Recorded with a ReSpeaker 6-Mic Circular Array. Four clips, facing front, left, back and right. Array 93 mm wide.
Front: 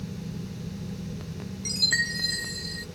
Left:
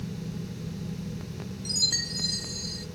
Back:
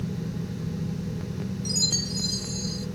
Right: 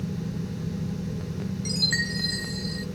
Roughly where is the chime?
Ahead right.